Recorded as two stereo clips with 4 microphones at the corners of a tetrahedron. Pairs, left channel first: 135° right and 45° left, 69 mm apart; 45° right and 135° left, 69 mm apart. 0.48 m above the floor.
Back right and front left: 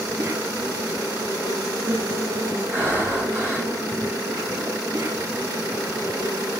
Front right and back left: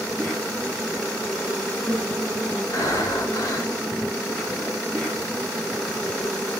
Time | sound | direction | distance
0.0 | an insect | 35° left | 8 m
2.7 | breathing | 15° right | 4.5 m